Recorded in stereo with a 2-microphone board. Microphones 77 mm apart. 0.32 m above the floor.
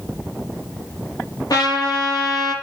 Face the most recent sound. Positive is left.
turn(degrees=55)  # may be behind; listen again after turning